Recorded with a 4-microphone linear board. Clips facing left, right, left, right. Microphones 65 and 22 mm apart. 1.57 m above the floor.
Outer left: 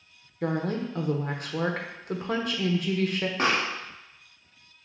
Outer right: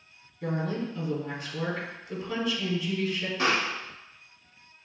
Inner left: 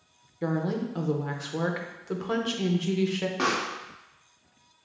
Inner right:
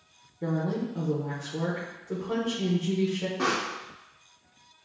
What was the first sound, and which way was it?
A woman speaking, 55° left (ahead or behind).